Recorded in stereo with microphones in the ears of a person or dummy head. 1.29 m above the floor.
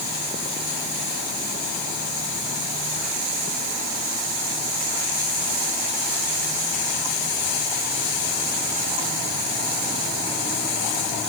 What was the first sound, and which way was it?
Only background noise.